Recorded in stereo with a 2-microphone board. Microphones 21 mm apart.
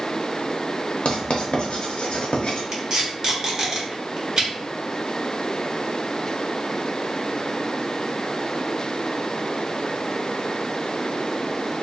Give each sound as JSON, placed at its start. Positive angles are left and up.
{"t": 1.1, "sound": "writing", "side_deg": 70, "distance_m": 0.7}
{"t": 2.7, "sound": "tape being pulled", "side_deg": -25, "distance_m": 1.1}